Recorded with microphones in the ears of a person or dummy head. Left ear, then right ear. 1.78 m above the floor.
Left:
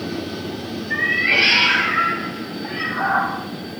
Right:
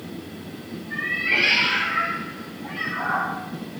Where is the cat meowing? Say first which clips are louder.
Left 5 dB; 35° left (ahead or behind), 2.5 m; by 3.3 s 25° left (ahead or behind), 5.5 m.